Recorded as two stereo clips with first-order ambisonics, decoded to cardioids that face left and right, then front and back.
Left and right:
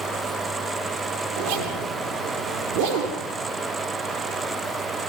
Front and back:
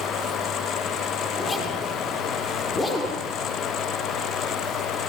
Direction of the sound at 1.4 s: 70° right.